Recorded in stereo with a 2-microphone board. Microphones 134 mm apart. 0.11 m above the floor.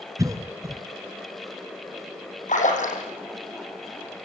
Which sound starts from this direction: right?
A cough, at 0.2 s.